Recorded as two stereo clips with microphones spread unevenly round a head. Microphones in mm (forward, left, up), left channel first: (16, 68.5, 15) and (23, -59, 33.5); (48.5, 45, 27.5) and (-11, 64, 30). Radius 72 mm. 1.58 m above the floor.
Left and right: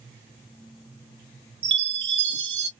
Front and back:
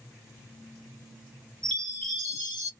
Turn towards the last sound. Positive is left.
turn(degrees=-100)